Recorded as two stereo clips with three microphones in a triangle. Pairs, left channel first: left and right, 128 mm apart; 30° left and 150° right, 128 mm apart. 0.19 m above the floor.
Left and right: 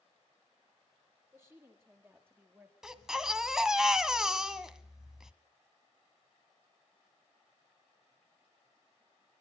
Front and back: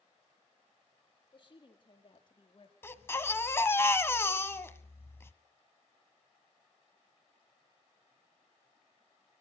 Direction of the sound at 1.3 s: 20° right.